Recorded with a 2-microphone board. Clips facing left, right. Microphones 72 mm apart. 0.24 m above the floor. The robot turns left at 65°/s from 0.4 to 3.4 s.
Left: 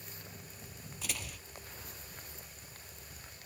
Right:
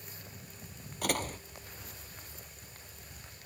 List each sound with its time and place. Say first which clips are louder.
1.0 s a door slam: right 11 dB; 60° right (ahead or behind); by 1.4 s 35° right (ahead or behind)